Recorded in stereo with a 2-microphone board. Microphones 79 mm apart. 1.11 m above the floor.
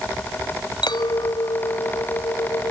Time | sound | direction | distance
0.8 | a clink | 85° left | ?